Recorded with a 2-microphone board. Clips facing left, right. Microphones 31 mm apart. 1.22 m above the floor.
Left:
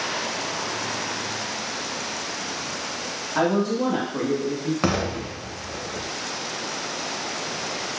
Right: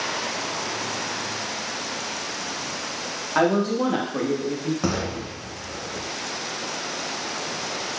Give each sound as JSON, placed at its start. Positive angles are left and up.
{"t": 3.4, "sound": "a woman speaking", "side_deg": -90, "distance_m": 1.0}
{"t": 4.8, "sound": "an explosion", "side_deg": 60, "distance_m": 0.5}